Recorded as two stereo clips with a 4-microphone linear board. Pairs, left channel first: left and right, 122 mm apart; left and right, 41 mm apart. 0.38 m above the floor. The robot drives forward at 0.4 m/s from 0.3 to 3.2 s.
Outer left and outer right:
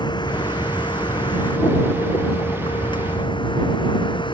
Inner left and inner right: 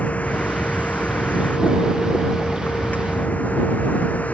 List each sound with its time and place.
0.0 s a vehicle: 40° left (ahead or behind); by 4.3 s 45° left (ahead or behind)